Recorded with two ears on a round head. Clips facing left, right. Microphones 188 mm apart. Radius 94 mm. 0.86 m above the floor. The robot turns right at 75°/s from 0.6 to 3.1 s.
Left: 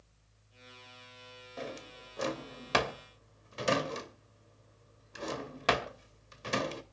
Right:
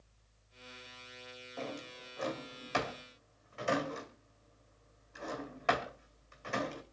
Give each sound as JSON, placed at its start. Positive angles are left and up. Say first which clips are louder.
{"t": 1.6, "sound": "a drawer", "louder": "even", "side_deg": 10, "distance_m": 2.0}